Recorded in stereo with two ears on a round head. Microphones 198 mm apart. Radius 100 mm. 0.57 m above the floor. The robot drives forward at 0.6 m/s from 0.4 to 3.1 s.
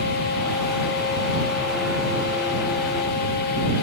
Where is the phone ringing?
No phone ringing in this recording.